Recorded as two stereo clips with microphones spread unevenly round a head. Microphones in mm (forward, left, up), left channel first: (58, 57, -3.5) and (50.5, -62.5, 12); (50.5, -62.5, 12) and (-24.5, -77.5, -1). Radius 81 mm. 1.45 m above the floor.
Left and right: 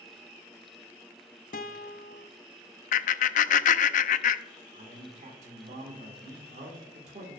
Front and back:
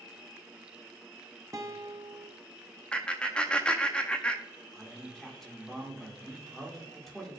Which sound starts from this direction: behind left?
A guitar, at 1.5 s.